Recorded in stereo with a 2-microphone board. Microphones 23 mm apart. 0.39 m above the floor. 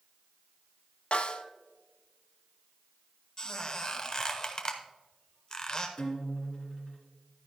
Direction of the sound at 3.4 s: 30° left (ahead or behind).